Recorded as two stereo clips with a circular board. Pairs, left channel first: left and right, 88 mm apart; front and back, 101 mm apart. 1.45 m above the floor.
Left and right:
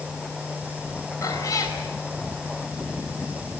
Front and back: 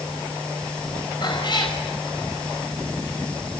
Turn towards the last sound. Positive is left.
turn(degrees=40)